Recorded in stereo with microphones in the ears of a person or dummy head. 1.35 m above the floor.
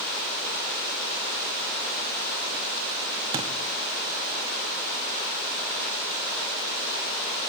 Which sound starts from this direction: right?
A thud, at 3.3 s.